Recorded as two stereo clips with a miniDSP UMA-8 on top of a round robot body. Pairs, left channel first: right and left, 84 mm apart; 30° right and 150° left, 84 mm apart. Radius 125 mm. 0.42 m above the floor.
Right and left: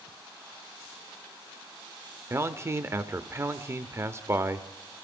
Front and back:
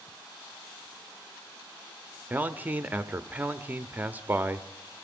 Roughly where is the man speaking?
Left.